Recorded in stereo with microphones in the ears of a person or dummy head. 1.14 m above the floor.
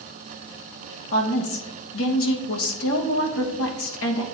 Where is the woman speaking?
70° left (ahead or behind), 1.1 m.